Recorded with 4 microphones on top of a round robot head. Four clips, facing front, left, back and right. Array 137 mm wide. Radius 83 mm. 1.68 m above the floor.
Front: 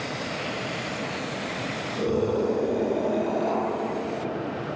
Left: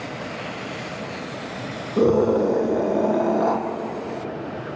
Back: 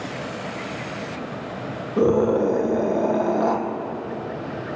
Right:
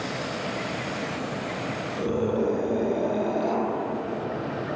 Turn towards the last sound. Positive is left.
turn(degrees=130)